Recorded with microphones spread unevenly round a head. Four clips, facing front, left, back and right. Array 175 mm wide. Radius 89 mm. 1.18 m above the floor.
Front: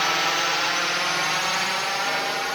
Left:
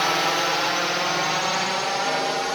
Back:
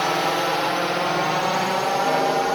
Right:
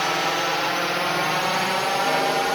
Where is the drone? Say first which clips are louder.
Left 1 dB, back 3 dB; 175° left; by 2.5 s 160° right.